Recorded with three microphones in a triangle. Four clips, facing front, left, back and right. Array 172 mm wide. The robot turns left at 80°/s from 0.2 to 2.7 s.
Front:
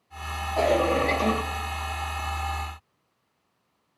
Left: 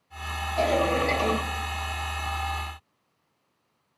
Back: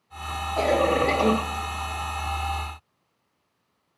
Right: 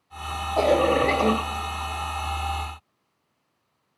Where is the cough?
85° right, 2.5 m; by 1.3 s 145° right, 2.5 m.